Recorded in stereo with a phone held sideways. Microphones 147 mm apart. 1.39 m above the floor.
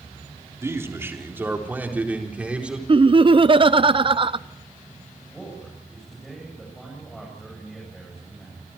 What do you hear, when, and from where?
0.6 s a man speaking: 20° right (ahead or behind), 3.5 m; by 2.8 s 10° right (ahead or behind), 4.5 m
2.9 s laughter: 40° right (ahead or behind), 0.7 m
5.3 s a man speaking: centre (ahead or behind), 8.5 m